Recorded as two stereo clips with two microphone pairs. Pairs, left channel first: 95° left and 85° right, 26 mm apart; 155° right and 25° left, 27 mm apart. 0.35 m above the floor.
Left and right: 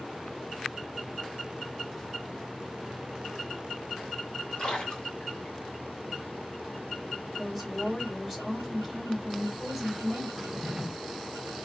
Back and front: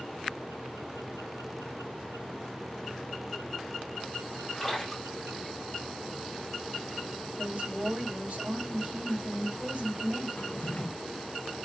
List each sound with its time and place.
4.6 s a splash: 115° left, 1.8 m
7.4 s a woman speaking: 15° left, 2 m
10.4 s a drawer: 160° right, 0.7 m